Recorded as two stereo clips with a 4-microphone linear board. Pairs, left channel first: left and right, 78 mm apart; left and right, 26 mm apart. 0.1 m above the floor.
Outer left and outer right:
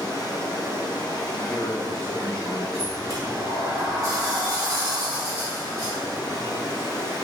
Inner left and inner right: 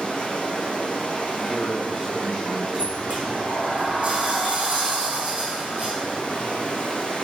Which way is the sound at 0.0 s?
55° left (ahead or behind).